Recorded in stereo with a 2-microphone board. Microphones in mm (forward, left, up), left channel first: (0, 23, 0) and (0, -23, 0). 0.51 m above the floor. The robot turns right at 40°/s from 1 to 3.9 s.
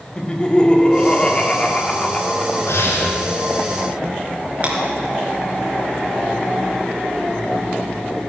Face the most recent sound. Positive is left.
turn(degrees=-35)  # may be behind; listen again after turning